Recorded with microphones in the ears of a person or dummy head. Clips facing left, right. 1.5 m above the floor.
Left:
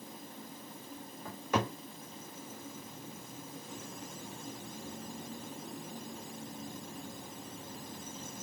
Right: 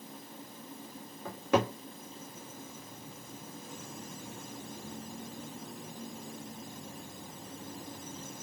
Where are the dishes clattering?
I don't hear dishes clattering.